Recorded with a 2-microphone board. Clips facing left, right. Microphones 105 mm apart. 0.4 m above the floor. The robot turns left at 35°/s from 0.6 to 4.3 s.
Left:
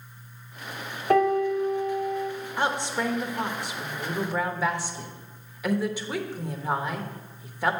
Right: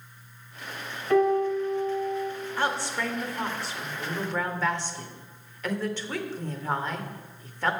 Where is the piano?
80° left, 1.7 m; by 2.3 s 40° left, 1.7 m.